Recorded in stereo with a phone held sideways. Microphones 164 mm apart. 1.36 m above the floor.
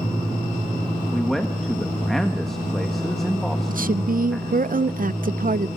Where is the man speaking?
Centre (ahead or behind), 1.5 m.